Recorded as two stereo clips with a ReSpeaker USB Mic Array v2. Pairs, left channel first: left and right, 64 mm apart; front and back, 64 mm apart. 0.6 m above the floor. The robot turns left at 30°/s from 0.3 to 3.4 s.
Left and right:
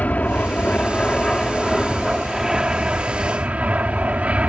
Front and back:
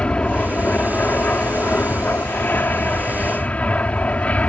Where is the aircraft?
50° left; by 4.5 s 45° right.